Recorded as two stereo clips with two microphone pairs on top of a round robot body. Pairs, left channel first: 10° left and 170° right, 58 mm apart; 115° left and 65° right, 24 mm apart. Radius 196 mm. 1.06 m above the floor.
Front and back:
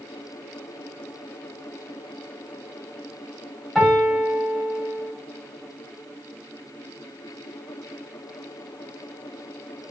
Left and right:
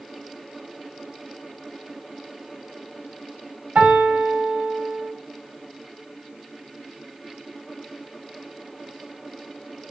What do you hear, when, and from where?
3.8 s a piano: 75° right, 5.5 m